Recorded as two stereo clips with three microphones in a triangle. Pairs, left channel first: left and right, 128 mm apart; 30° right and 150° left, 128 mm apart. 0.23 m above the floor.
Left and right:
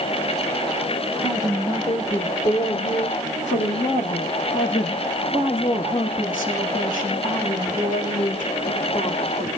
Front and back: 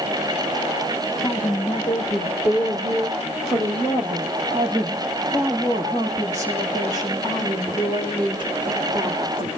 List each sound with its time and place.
1.2 s a woman speaking: 35° left, 7.5 m; by 9.5 s 95° left, 15 m